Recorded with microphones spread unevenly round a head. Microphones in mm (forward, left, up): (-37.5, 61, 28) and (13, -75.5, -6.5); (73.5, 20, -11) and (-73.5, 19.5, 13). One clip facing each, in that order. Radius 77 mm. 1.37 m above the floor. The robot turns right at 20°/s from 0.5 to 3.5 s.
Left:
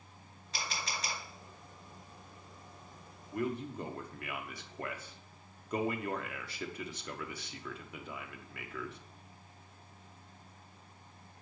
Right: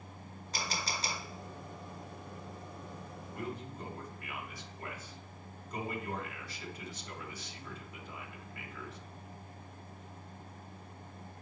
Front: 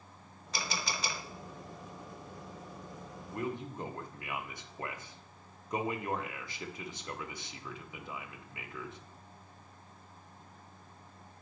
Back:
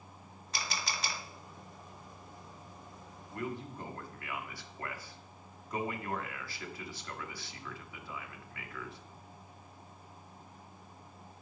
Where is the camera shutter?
20° right, 1.2 m; by 1.2 s 5° right, 1.2 m.